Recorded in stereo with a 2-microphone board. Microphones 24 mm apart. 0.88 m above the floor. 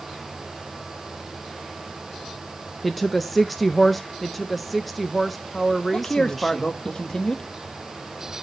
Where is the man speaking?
25° left (ahead or behind), 0.9 m.